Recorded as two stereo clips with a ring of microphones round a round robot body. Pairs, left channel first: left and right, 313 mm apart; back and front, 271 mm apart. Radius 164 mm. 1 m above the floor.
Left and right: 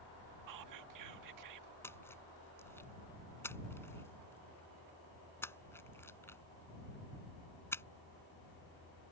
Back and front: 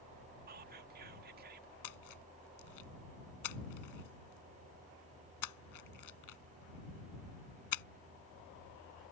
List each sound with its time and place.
0.5 s whispering: 60° right
1.8 s a splash: 175° left